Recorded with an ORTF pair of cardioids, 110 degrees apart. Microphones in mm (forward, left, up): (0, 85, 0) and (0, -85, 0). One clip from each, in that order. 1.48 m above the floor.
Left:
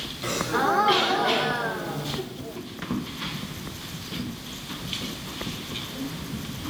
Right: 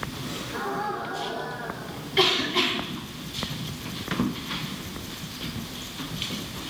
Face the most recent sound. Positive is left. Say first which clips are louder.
# left 10 dB
turn(degrees=70)